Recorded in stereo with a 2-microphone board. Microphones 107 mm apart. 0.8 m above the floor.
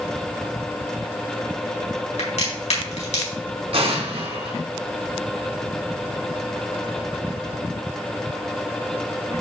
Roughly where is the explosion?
Right.